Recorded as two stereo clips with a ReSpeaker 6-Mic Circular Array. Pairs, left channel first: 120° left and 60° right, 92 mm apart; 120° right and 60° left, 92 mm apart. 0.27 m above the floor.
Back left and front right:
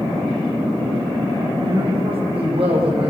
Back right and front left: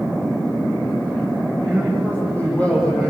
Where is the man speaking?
45° right, 9 m.